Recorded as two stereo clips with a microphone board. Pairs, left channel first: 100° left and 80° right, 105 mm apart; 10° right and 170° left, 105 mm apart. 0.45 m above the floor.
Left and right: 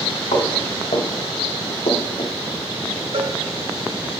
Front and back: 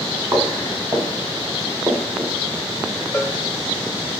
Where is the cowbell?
75° right, 1.1 m.